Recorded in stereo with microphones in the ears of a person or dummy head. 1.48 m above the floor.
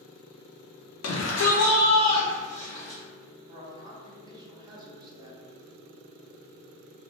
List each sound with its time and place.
1.0 s a shout: 75° left (ahead or behind), 0.6 m; by 3.0 s 20° left (ahead or behind), 1.3 m
3.5 s a man speaking: 10° right (ahead or behind), 0.7 m